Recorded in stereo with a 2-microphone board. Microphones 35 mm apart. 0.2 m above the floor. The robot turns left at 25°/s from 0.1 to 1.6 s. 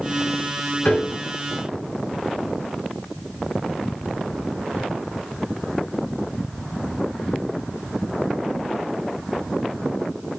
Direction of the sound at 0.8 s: 50° left (ahead or behind).